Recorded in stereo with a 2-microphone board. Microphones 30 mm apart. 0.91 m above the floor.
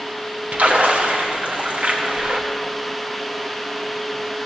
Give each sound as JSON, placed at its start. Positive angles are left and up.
{"t": 0.5, "sound": "a splash", "side_deg": -55, "distance_m": 1.1}